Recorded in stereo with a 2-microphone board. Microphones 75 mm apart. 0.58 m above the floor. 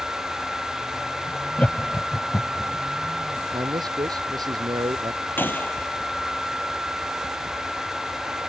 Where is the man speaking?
85° right.